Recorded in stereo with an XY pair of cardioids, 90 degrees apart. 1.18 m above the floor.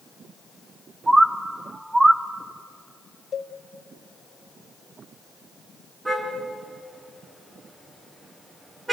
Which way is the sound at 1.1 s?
15° right.